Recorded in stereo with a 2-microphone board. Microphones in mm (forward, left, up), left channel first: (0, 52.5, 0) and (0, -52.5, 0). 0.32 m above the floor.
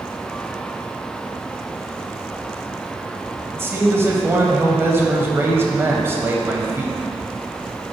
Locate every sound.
3.5 s a man speaking: 25° right (ahead or behind), 1.3 m